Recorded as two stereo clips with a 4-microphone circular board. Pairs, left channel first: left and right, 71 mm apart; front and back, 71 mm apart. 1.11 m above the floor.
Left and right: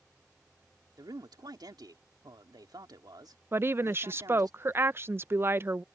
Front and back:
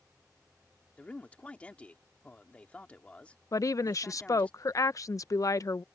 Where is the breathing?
No breathing in this recording.